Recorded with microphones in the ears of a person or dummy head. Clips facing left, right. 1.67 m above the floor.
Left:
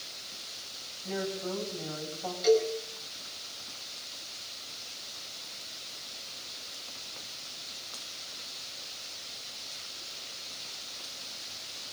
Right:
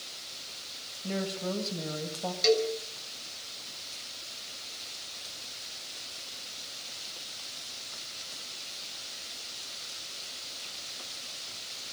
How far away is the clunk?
No clunk in this recording.